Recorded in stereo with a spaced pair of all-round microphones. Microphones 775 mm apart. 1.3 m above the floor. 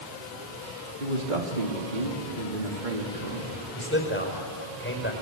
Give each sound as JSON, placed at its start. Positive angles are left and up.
{"t": 1.0, "sound": "a man speaking", "side_deg": -80, "distance_m": 3.5}
{"t": 3.8, "sound": "a man speaking", "side_deg": 15, "distance_m": 5.0}